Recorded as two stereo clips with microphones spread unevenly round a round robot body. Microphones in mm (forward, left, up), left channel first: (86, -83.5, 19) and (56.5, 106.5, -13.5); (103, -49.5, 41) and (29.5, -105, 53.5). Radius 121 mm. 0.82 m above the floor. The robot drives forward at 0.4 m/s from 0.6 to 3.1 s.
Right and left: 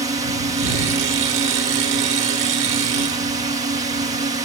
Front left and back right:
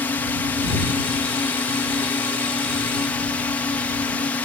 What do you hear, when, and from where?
0.0 s a drone: 70° left; by 4.5 s 75° left